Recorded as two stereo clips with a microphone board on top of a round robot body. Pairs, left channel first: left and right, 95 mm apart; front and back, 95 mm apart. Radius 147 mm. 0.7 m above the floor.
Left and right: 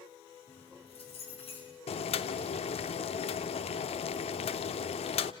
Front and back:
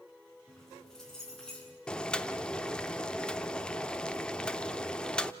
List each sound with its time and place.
0.5 s keys jangling: 85° left, 7.5 m; by 1.8 s 80° left, 8.5 m
1.9 s boiling: 80° left, 0.6 m